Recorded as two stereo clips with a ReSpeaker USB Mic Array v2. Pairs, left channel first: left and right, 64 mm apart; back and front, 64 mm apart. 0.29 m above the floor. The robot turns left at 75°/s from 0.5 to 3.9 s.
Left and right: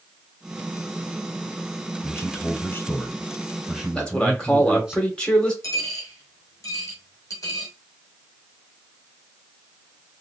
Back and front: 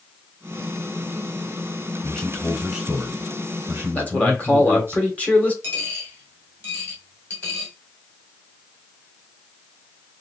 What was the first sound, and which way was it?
A man speaking, 115° left.